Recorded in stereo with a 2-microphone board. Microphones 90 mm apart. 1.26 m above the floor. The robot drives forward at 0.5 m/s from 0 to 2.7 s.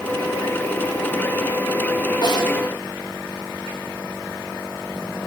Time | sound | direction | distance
2.2 | a snare drum | 50° left (ahead or behind) | 5 m